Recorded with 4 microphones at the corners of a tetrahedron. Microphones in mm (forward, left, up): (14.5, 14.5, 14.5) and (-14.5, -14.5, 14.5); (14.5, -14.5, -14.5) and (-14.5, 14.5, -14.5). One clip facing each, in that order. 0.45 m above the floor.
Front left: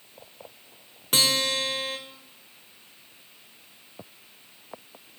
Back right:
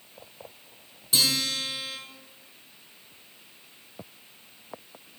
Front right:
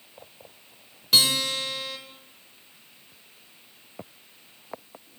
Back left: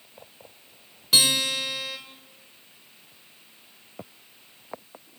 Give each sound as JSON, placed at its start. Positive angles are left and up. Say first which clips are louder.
{"t": 1.1, "sound": "a guitar", "louder": "front left 3 dB, even", "azimuth_deg": 50, "distance_m": 1.3}